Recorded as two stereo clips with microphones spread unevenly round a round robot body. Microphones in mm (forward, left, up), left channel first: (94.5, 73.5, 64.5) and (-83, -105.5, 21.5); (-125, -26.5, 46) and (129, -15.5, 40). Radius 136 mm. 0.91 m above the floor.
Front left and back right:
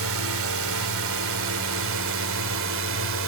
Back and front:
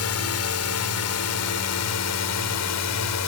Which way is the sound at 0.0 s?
155° right.